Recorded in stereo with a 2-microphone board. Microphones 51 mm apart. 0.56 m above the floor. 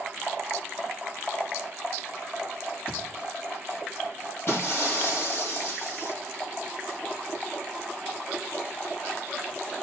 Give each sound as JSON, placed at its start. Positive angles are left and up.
{"t": 2.9, "sound": "a thud", "side_deg": 50, "distance_m": 8.5}
{"t": 4.5, "sound": "breaking glass", "side_deg": 50, "distance_m": 9.5}